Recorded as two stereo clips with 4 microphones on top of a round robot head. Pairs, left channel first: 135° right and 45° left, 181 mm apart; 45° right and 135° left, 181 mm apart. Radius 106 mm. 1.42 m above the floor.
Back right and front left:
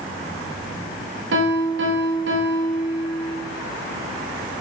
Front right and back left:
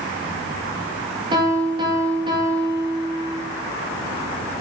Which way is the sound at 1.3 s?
65° left.